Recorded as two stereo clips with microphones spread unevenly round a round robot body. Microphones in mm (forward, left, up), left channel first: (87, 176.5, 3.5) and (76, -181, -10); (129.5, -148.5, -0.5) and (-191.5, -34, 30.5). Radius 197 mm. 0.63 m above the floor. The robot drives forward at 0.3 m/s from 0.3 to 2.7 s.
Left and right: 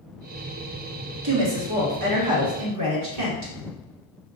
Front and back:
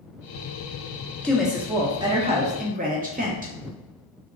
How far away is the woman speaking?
About 0.8 m.